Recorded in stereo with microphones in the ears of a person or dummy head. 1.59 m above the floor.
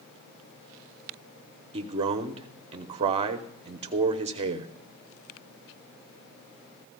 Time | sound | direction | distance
1.7 | a man speaking | 35° right (ahead or behind) | 0.8 m